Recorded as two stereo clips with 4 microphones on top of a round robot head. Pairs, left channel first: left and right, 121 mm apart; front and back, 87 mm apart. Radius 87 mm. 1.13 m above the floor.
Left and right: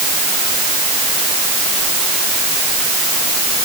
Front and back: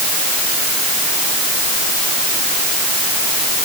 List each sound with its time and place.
Only background noise.